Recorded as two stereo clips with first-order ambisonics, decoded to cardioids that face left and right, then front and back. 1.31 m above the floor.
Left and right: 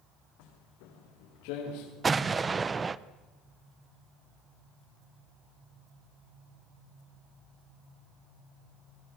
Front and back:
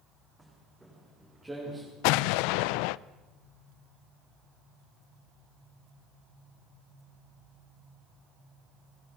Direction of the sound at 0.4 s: 95° left.